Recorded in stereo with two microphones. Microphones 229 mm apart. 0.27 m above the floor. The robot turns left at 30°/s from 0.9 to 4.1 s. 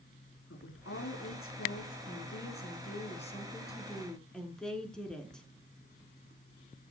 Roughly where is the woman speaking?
Left.